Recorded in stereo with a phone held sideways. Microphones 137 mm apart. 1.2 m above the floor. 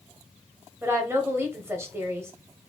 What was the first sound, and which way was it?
A woman speaking, 20° right (ahead or behind).